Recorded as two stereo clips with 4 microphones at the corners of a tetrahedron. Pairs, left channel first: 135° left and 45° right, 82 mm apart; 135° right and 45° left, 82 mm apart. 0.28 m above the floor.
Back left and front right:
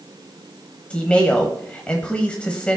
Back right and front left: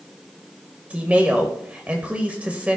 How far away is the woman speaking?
About 1.1 m.